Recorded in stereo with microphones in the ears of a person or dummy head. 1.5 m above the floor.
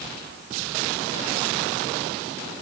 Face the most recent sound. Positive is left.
No sound to turn to.